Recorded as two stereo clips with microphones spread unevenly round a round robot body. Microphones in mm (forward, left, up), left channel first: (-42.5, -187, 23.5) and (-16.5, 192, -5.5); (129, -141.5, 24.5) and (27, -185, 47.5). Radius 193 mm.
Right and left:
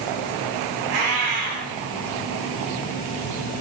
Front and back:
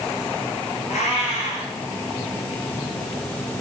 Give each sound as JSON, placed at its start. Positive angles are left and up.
{"t": 0.9, "sound": "a cat meowing", "azimuth_deg": 60, "distance_m": 5.5}